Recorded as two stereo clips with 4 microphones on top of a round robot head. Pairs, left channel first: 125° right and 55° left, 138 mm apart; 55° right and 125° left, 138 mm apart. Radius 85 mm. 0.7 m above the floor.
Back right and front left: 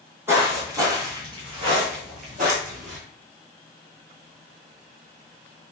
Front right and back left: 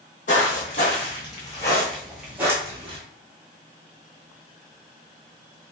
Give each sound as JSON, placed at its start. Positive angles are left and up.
{"t": 0.3, "sound": "footsteps", "azimuth_deg": -20, "distance_m": 1.3}